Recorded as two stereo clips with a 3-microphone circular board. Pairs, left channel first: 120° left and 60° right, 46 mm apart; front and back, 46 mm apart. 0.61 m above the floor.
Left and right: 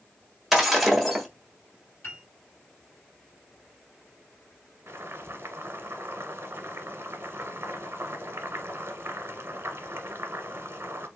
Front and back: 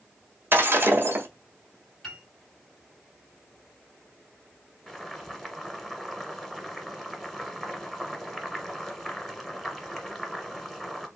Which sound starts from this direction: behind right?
Breaking glass, at 0.5 s.